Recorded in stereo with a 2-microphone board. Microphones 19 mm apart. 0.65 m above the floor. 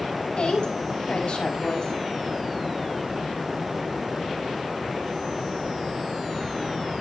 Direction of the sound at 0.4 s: 60° left (ahead or behind).